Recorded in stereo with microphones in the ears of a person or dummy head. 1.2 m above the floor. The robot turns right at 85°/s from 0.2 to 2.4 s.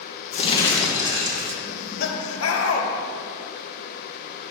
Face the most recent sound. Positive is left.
turn(degrees=95)